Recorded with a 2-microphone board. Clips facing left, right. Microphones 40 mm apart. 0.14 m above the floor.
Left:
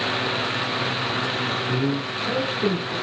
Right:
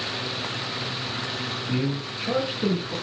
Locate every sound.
1.7 s a man speaking: 5° right (ahead or behind), 1.6 m